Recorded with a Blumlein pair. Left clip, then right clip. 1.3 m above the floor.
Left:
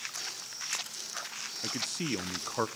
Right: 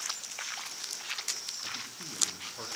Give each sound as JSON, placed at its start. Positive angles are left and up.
{"t": 1.6, "sound": "a man speaking", "azimuth_deg": 55, "distance_m": 0.7}